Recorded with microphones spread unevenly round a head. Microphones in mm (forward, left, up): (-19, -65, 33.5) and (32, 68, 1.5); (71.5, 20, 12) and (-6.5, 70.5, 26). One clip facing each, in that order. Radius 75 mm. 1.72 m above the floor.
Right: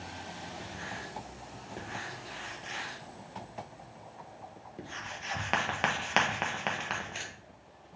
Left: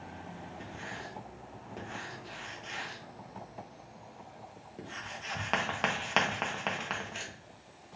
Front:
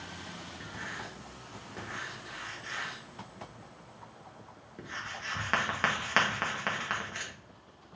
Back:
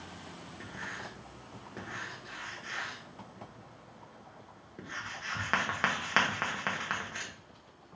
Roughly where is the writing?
Behind right.